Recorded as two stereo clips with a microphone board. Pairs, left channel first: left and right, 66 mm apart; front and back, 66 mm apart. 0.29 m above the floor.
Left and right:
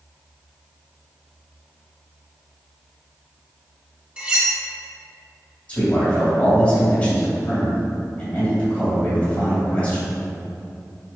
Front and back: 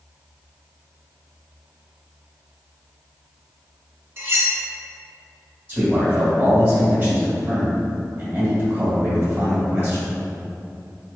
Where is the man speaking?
145° left, 1.9 m.